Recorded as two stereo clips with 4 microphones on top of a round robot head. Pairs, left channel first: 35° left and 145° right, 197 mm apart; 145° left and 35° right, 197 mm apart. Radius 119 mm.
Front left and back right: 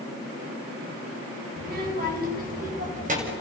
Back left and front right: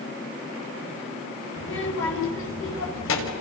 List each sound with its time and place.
1.6 s a child speaking: 175° left, 6.5 m; by 3.3 s 160° left, 6.5 m